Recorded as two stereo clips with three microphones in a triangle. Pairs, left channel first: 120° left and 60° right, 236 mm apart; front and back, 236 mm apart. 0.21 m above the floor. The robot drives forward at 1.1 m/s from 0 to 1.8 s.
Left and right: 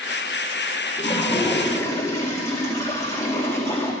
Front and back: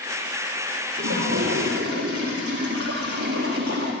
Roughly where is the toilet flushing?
Behind.